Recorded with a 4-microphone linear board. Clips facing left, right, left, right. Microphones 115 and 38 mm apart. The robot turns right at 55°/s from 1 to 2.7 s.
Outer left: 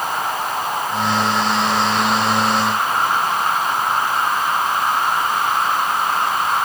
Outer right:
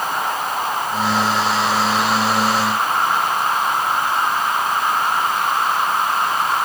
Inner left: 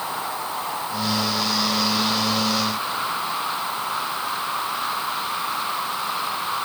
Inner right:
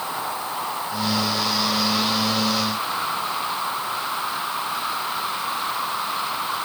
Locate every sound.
Only background noise.